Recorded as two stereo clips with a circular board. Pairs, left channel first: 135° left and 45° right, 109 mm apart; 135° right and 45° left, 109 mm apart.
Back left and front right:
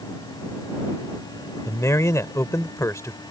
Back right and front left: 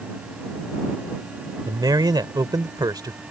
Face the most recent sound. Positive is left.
turn(degrees=80)